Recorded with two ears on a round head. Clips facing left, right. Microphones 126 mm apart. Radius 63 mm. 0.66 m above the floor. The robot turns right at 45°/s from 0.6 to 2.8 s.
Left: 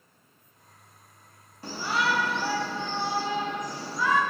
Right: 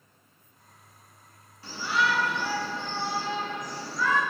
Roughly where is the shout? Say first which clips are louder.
Even; left.